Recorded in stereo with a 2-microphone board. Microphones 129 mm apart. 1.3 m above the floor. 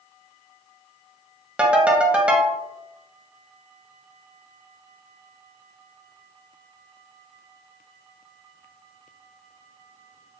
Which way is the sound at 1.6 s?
10° right (ahead or behind).